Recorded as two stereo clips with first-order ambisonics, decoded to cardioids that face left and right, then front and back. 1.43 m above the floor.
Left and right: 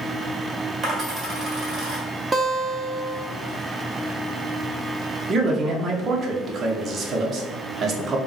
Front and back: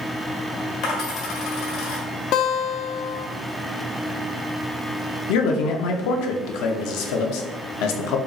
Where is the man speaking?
25° right, 0.8 m.